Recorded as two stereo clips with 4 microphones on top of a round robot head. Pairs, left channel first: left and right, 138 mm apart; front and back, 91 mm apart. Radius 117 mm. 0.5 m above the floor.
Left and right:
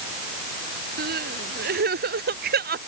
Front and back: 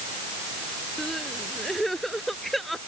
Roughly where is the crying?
Right.